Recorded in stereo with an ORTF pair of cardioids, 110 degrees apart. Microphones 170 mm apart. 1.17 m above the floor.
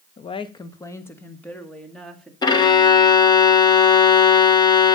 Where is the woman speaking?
45° left, 0.9 m; by 2.3 s 5° left, 2.5 m.